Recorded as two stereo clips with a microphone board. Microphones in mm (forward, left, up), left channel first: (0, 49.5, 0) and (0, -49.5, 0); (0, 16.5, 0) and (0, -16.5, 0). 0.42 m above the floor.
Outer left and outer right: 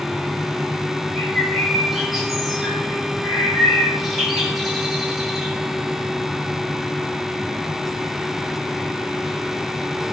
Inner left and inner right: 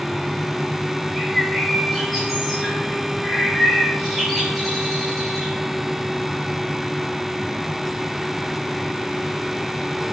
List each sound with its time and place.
1.1 s a bird: centre (ahead or behind), 6 m